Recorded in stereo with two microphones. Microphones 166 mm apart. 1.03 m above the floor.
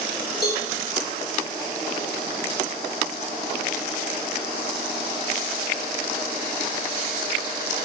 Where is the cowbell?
75° left (ahead or behind), 2 m.